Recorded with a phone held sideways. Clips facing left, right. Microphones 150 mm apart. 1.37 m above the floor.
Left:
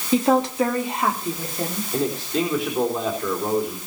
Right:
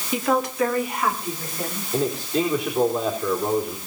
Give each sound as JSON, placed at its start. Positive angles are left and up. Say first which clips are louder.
{"t": 0.1, "sound": "a woman speaking", "louder": "left 4 dB", "side_deg": 30, "distance_m": 3.5}
{"t": 1.9, "sound": "a man speaking", "louder": "right 1 dB", "side_deg": 0, "distance_m": 4.0}